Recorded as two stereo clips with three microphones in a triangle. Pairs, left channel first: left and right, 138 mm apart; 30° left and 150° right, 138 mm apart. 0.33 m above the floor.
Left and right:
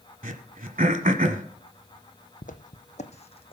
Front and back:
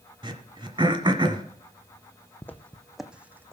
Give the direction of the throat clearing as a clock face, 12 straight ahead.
3 o'clock.